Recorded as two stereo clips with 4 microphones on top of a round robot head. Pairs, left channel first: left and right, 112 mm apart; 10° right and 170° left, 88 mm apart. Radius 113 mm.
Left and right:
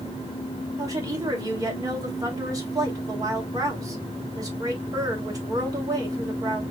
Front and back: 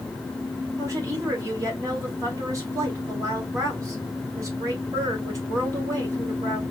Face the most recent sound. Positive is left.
turn(degrees=-145)